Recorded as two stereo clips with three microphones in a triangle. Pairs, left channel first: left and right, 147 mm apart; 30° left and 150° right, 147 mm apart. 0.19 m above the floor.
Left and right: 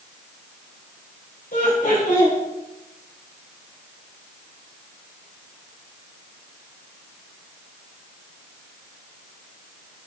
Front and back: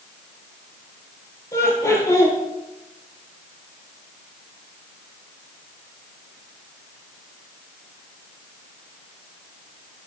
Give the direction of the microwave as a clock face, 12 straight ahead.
No microwave in this recording.